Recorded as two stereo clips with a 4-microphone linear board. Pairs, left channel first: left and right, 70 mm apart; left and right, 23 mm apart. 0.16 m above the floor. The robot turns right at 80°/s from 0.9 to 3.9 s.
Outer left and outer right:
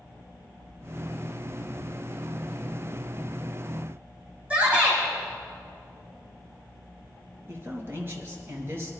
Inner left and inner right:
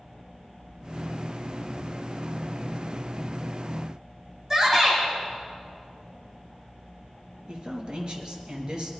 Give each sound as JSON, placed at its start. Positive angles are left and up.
{"t": 4.5, "sound": "a shout", "side_deg": -20, "distance_m": 6.5}
{"t": 7.5, "sound": "a man speaking", "side_deg": -35, "distance_m": 3.0}